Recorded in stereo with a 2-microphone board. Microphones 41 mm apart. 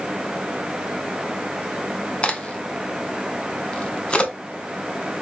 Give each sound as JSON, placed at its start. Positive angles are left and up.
{"t": 2.2, "sound": "a crack", "side_deg": 30, "distance_m": 0.8}